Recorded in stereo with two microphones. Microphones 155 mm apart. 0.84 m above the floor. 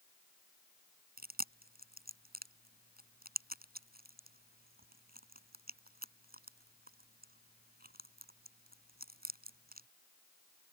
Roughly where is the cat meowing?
I don't hear a cat meowing.